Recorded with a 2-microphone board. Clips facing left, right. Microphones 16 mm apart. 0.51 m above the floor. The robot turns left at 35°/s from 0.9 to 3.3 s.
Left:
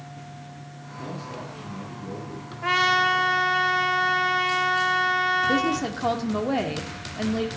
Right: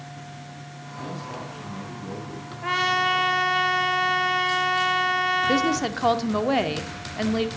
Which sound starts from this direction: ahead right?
A man speaking, at 0.9 s.